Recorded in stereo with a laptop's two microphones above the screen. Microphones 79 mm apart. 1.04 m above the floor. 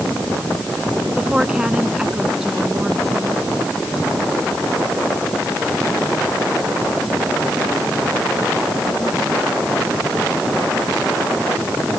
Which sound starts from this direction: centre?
A woman speaking, at 1.1 s.